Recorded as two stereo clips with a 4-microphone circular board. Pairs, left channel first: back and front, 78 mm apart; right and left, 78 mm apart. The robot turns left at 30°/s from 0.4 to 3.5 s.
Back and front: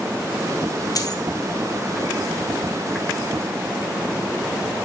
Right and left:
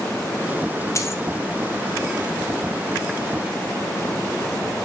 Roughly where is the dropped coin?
Behind right.